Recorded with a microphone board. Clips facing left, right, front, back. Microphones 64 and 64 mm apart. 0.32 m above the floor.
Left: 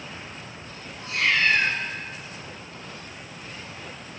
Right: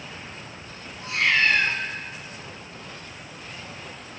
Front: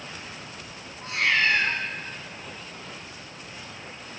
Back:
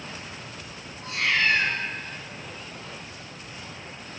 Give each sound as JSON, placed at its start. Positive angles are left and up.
{"t": 1.0, "sound": "a cat meowing", "azimuth_deg": -15, "distance_m": 5.0}